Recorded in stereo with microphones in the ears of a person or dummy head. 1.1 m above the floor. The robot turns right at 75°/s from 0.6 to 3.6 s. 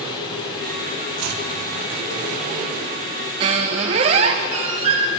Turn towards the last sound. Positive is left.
turn(degrees=-20)  # may be behind; listen again after turning